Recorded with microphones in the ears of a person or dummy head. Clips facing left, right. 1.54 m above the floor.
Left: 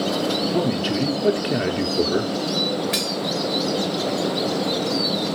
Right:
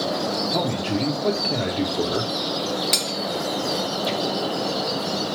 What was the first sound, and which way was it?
A man speaking, 15° left (ahead or behind).